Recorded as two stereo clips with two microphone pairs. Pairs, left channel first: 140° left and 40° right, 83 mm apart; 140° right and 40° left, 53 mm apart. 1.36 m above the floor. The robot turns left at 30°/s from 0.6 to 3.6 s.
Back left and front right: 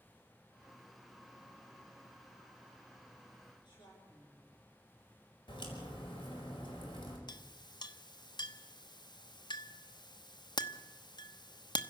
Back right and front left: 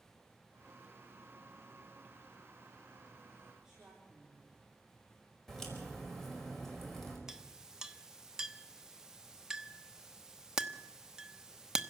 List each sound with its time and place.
3.6 s a woman speaking: 115° left, 4.5 m
5.5 s a crack: 140° left, 5 m
7.3 s a clink: 120° left, 1.0 m